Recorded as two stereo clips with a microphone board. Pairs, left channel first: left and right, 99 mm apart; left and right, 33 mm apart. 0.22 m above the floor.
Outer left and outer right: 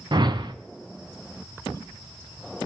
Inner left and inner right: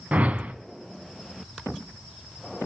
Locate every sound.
0.1 s a whoosh: 50° right (ahead or behind), 0.7 m